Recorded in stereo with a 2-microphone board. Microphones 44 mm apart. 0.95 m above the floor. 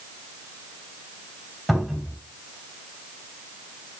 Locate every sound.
1.7 s a cupboard door: 5° left (ahead or behind), 4.5 m